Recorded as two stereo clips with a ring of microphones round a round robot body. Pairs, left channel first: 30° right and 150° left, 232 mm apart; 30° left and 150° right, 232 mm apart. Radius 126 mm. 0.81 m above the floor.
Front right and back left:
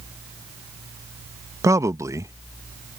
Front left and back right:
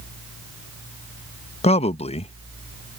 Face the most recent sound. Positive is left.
turn(degrees=80)